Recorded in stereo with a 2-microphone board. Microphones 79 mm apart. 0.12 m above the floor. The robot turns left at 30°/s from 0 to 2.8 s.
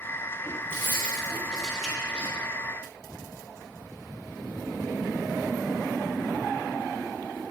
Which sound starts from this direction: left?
Keys jangling, at 0.7 s.